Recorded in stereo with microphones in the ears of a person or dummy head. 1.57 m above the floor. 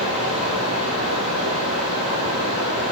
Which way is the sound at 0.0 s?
35° right (ahead or behind).